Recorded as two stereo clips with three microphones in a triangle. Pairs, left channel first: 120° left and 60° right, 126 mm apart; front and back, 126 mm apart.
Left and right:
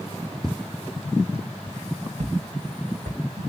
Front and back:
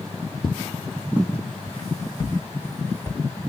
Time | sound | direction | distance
0.4 | footsteps | 35° left | 0.5 m